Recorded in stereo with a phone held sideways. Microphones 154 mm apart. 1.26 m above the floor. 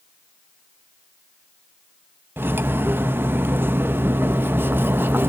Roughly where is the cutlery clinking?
Centre.